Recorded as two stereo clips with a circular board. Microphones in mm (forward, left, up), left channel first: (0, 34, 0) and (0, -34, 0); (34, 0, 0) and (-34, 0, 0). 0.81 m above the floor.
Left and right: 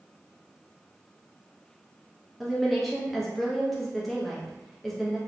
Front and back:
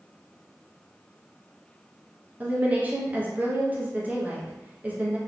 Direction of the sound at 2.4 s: 175° left.